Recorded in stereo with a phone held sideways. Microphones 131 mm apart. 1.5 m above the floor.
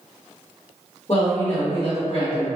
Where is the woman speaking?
40° left (ahead or behind), 0.9 m.